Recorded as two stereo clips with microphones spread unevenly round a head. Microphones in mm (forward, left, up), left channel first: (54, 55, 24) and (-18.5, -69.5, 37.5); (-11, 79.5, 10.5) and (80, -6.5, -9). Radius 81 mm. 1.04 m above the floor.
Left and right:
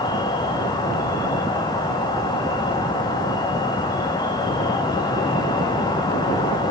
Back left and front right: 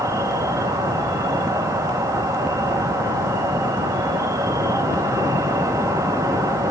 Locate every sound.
0.0 s an insect: 10° left, 1.1 m